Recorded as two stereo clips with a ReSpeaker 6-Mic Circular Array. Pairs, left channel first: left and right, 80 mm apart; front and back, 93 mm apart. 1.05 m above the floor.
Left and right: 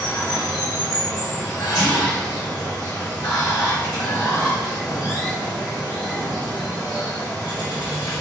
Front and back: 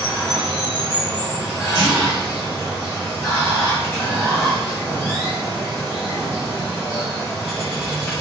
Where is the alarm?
No alarm in this recording.